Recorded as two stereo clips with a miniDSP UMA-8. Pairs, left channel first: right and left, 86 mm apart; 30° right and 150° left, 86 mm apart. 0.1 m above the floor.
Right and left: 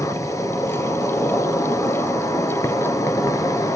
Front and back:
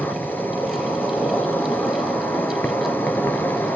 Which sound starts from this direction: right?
An insect, at 0.0 s.